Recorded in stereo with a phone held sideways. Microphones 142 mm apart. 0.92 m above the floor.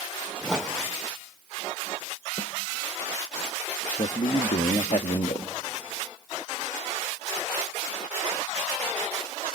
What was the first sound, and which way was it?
A whoosh, 5° right (ahead or behind).